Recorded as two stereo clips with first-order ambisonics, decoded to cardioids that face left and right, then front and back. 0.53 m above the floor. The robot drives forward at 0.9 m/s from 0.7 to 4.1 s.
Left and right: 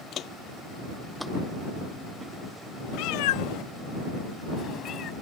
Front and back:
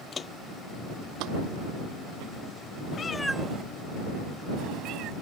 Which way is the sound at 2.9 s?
60° left.